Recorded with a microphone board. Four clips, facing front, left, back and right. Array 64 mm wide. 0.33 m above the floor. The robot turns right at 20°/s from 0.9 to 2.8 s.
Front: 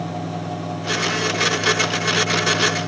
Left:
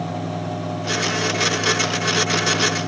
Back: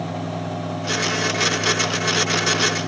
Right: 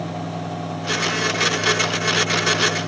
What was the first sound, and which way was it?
Only background noise.